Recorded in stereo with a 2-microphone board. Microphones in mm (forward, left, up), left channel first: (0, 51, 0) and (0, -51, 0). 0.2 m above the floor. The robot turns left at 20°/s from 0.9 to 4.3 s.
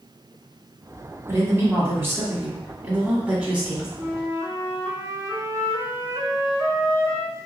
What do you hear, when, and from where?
1.3 s a woman speaking: 115° right, 1.3 m; by 3.9 s 165° right, 1.3 m
4.0 s a flute: 25° right (ahead or behind), 0.7 m; by 7.5 s 30° right (ahead or behind), 0.7 m